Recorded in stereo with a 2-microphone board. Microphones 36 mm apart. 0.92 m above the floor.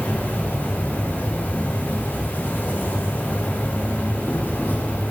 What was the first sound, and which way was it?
An insect, 70° left (ahead or behind).